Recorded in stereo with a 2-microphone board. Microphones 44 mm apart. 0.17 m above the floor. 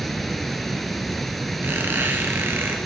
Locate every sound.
0.0 s running water: 5° left (ahead or behind), 0.9 m
1.6 s a squeak: 55° right (ahead or behind), 1.7 m